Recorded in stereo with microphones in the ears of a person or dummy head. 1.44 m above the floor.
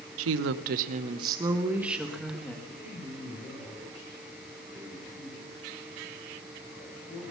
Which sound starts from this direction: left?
A man speaking, at 2.6 s.